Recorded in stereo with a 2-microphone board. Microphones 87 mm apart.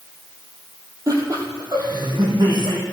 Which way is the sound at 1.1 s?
40° right (ahead or behind).